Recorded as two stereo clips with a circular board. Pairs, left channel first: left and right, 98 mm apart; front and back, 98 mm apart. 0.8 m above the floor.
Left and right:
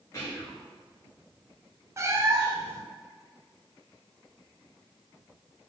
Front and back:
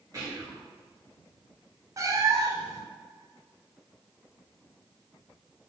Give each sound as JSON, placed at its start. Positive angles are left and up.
{"t": 0.1, "sound": "whispering", "azimuth_deg": 135, "distance_m": 1.8}
{"t": 2.0, "sound": "a cat meowing", "azimuth_deg": -140, "distance_m": 0.5}